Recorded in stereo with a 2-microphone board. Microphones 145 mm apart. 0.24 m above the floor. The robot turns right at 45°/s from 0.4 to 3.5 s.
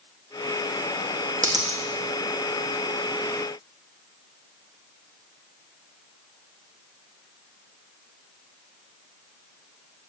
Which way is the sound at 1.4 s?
60° right (ahead or behind).